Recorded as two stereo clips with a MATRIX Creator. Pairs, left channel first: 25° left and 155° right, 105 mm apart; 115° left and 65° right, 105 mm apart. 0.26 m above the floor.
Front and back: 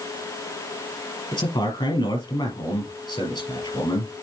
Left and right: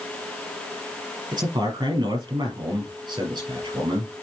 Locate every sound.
1.3 s a man speaking: 20° right, 4.5 m